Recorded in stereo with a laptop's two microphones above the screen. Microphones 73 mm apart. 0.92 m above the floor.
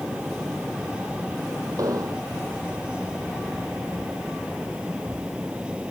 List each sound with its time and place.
0.0 s a fan: 15° right (ahead or behind)
1.8 s an explosion: 60° right (ahead or behind)